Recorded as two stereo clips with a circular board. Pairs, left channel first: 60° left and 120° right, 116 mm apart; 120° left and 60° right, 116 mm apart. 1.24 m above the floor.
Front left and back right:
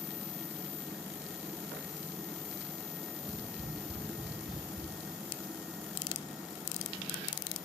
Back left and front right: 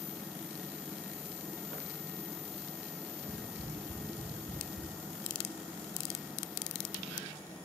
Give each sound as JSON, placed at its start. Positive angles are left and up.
{"t": 3.2, "sound": "tapping", "azimuth_deg": 110, "distance_m": 8.5}